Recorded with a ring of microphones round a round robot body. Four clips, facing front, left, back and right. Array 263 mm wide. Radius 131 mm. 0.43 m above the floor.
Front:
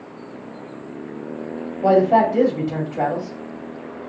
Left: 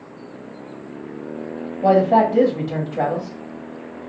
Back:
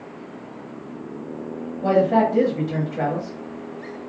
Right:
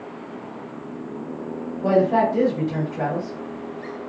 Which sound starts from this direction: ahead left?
A man speaking, at 1.8 s.